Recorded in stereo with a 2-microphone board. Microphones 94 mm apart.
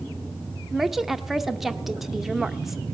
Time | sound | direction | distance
0.7 | a woman speaking | 5° right (ahead or behind) | 0.7 m